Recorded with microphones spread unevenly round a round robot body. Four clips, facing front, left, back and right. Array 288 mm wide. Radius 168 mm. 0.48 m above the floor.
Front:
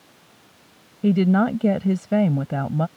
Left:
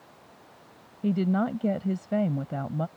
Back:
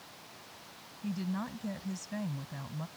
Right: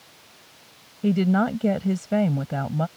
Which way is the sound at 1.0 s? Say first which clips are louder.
Right 5 dB, front 19 dB; 25° right.